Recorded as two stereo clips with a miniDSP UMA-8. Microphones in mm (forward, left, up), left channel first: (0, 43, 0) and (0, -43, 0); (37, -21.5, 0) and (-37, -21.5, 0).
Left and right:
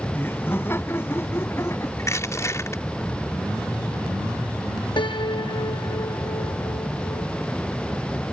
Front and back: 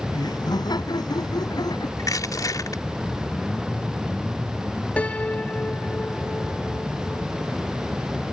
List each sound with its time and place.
0.1 s laughter: 25° left; by 1.9 s 30° left
2.0 s crushing: 35° left
5.0 s a piano: 70° left